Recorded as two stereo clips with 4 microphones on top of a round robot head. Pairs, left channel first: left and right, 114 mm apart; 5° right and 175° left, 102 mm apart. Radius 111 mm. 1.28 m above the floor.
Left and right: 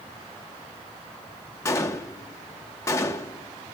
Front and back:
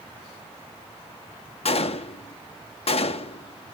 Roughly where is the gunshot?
Ahead.